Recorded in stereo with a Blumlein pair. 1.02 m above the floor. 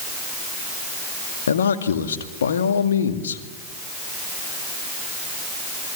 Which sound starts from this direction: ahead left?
A man speaking, at 1.5 s.